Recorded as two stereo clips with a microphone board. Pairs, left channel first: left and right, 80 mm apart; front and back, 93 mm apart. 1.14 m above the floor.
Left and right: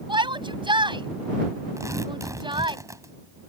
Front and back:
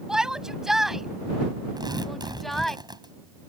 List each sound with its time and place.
0.1 s a shout: 95° right; by 2.8 s 85° right
1.8 s tearing paper: 140° right